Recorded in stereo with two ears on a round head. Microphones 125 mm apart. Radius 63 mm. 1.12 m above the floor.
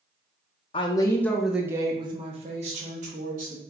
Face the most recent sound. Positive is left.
turn(degrees=-65)  # may be behind; listen again after turning